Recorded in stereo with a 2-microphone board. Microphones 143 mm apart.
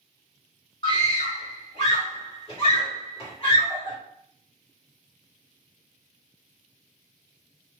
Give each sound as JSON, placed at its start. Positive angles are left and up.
{"t": 0.8, "sound": "a scream", "side_deg": 40, "distance_m": 1.7}